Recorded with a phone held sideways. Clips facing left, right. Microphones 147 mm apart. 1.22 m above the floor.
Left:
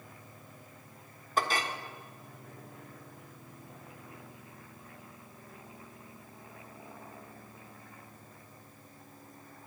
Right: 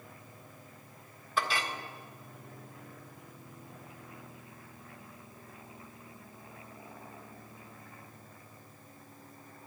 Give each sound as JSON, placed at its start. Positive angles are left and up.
{"t": 1.4, "sound": "a clink", "side_deg": 40, "distance_m": 1.6}